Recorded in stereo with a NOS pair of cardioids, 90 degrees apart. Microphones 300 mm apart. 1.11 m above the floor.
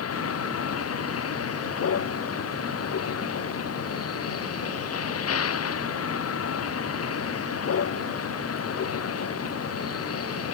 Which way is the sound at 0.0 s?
50° left.